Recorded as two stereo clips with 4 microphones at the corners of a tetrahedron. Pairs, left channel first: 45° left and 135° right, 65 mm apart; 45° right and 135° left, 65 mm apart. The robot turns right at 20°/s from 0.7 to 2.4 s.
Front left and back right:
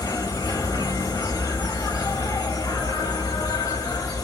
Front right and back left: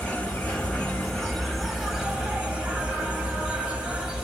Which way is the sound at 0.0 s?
25° left.